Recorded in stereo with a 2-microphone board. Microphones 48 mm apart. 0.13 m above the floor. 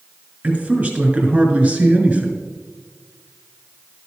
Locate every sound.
0.4 s a man speaking: 25° right (ahead or behind), 2.0 m